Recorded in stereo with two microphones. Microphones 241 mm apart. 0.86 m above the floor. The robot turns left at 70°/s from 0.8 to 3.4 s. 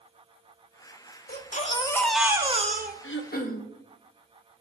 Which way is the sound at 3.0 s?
60° left (ahead or behind).